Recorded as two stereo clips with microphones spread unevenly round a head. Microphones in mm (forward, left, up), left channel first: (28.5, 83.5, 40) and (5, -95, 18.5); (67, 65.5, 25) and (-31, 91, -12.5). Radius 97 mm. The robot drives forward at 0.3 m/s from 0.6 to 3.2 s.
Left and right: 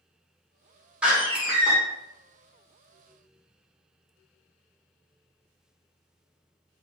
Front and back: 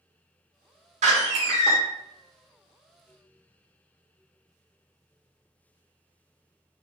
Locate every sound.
1.0 s a door slam: 175° left, 1.1 m; by 1.8 s straight behind, 1.3 m